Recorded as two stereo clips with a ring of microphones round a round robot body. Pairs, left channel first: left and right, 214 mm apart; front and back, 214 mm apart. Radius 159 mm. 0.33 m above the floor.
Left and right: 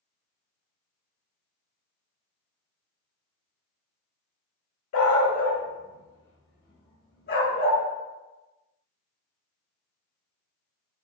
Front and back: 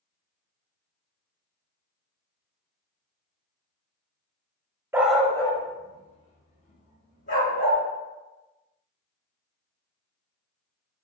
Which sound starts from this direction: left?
A dog barking, at 4.9 s.